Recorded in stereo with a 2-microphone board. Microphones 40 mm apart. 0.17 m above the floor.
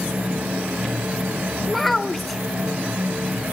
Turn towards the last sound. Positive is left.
turn(degrees=0)  # may be behind; listen again after turning